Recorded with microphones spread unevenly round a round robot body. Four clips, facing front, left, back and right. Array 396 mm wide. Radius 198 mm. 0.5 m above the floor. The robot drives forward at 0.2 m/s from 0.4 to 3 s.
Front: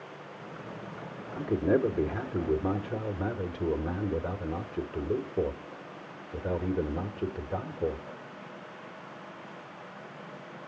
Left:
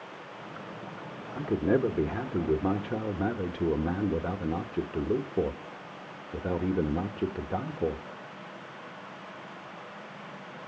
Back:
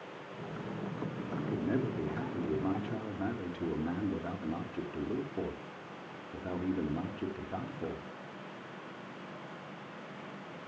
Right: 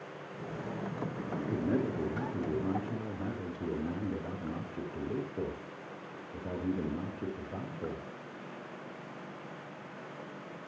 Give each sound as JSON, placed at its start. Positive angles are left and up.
{"t": 1.4, "sound": "a man speaking", "azimuth_deg": 50, "distance_m": 1.4}